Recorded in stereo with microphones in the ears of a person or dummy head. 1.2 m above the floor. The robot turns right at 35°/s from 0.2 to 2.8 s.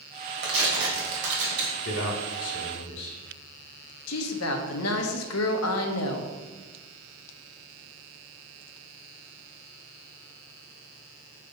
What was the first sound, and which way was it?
Tearing paper, 110° right.